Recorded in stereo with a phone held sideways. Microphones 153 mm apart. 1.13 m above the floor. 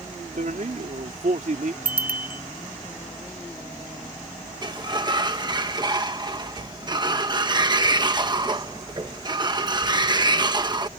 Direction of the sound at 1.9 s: 85° right.